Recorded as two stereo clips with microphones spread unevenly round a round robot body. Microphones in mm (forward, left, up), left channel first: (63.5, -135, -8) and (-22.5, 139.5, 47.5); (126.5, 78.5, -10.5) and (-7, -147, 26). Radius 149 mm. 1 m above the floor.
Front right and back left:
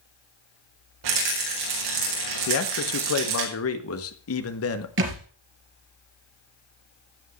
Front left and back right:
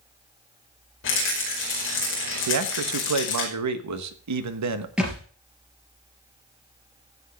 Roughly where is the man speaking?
Right.